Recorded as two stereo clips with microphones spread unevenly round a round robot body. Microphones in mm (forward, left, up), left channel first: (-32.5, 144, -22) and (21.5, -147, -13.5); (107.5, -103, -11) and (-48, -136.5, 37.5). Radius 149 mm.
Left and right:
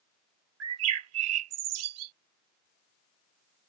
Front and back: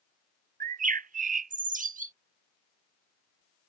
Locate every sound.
0.6 s a bird: 120° right